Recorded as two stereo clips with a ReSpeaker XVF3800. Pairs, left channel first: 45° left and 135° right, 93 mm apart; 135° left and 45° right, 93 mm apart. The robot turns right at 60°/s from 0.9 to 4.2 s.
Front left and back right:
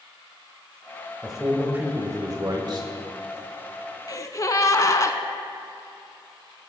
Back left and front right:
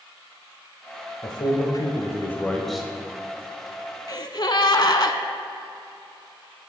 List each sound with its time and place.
1.2 s a man speaking: 130° left, 1.3 m; by 2.9 s 125° right, 1.3 m
4.1 s a gasp: 90° left, 0.5 m; by 5.2 s 95° left, 0.5 m